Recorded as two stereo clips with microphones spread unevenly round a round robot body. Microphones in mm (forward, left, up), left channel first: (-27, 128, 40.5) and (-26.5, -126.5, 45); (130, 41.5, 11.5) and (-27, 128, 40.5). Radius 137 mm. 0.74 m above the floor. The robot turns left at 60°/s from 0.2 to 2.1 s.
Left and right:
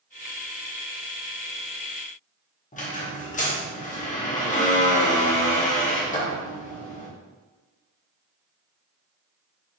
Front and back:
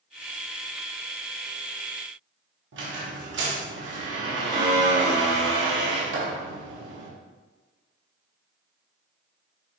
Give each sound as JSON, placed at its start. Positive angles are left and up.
{"t": 2.7, "sound": "a squeak", "azimuth_deg": 150, "distance_m": 1.1}